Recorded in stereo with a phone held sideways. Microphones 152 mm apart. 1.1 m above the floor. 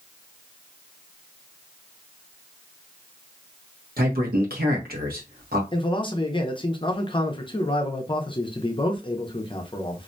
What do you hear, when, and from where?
4.0 s a man speaking: 85° right, 0.9 m
5.7 s a man speaking: 35° left (ahead or behind), 0.6 m